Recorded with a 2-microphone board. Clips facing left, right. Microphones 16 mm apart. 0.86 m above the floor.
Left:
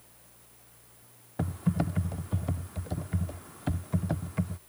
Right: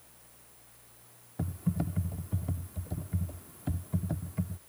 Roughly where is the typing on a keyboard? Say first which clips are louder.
Left 4 dB; left.